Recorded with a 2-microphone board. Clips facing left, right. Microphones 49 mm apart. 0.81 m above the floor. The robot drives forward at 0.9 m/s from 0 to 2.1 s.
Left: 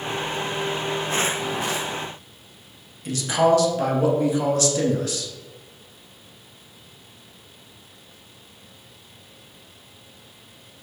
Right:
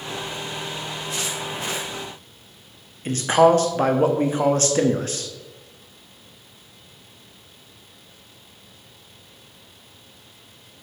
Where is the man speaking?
40° right (ahead or behind), 1.0 m.